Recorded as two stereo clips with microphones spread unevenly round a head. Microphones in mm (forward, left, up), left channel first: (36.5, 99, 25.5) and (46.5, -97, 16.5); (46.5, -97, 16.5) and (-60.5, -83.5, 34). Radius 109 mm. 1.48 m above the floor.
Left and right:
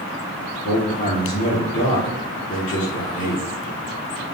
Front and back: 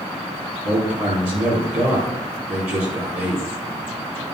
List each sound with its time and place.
0.6 s a man speaking: 150° left, 4.5 m